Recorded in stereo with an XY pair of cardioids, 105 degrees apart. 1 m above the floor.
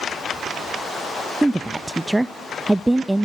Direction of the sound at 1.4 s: 10° right.